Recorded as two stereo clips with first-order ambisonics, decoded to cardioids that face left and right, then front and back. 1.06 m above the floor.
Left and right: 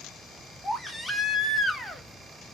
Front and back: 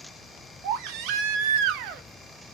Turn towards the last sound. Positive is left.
turn(degrees=180)